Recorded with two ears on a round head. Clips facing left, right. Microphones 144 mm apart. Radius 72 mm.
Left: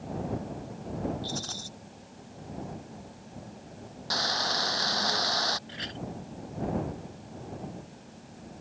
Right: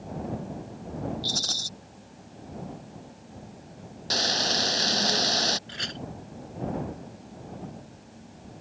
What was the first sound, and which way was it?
A rattle, 50° right (ahead or behind).